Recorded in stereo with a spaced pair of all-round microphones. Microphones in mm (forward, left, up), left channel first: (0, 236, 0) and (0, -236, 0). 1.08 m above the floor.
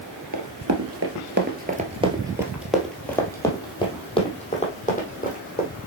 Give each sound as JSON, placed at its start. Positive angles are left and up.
{"t": 0.3, "sound": "running footsteps", "side_deg": -40, "distance_m": 1.3}